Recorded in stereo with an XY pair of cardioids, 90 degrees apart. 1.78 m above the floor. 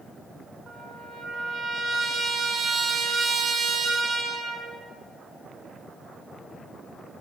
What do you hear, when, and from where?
0.7 s a trumpet: 55° right, 6 m